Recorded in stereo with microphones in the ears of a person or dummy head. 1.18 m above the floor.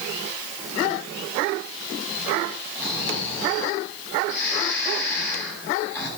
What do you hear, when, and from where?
2.8 s snoring: 10° left (ahead or behind), 9.5 m